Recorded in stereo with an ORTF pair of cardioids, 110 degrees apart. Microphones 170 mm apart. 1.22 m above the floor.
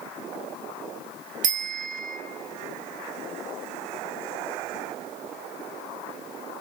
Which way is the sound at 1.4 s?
50° right.